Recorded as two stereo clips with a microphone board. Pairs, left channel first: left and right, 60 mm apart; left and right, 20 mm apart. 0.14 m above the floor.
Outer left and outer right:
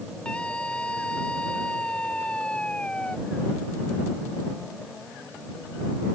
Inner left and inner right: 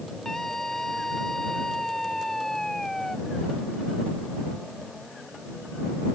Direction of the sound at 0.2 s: 20° left (ahead or behind).